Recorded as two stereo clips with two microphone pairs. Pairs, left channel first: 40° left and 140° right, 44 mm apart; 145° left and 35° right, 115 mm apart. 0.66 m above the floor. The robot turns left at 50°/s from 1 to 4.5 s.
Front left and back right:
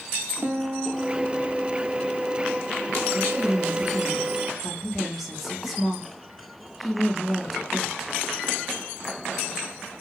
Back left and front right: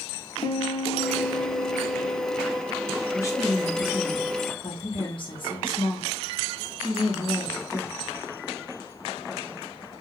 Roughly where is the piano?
Behind.